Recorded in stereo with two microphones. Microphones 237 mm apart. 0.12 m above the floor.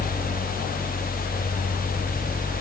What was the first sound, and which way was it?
Only background noise.